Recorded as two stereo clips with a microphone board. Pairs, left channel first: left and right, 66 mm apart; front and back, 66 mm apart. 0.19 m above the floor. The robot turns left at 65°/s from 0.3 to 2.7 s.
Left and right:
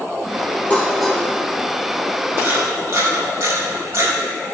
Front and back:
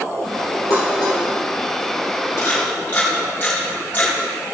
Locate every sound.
0.7 s dishes clattering: 20° left, 3.5 m; by 1.2 s 10° right, 3.5 m
2.4 s a camera shutter: 40° right, 5 m; by 4.1 s 60° right, 5 m